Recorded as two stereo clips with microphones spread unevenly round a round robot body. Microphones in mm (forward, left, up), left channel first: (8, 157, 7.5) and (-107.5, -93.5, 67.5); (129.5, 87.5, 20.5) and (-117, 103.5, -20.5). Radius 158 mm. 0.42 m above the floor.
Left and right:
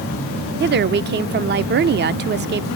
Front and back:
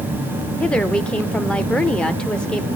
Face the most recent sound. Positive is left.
turn(degrees=-110)